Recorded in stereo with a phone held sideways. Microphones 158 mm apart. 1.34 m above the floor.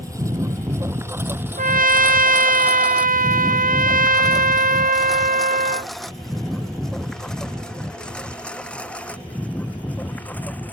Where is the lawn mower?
20° right (ahead or behind); by 10.7 s 10° left (ahead or behind).